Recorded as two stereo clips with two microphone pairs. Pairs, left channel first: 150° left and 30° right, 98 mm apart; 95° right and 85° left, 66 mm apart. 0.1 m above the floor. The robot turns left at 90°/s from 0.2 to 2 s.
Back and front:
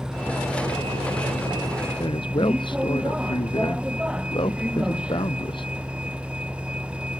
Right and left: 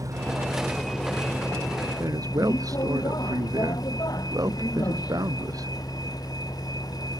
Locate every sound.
0.0 s a vehicle: 55° left; by 7.2 s 110° right
2.0 s a man speaking: 115° left